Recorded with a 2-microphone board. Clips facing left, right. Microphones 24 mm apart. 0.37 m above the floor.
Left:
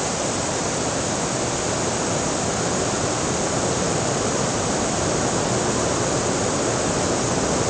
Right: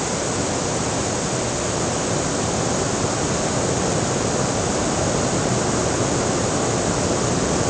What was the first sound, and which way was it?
Only background noise.